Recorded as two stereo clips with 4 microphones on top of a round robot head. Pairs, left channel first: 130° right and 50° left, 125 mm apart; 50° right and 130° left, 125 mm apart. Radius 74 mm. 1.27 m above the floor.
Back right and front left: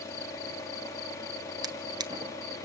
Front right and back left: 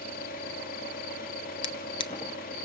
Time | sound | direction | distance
0.0 | an engine running | 60° right | 2.5 m
1.6 | a drawer | 5° right | 0.5 m